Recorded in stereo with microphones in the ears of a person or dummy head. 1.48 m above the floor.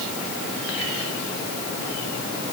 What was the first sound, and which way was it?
Only background noise.